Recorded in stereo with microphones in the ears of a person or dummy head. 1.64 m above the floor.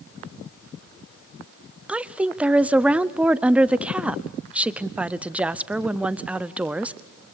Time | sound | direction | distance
1.9 | a woman speaking | 5° right (ahead or behind) | 0.5 m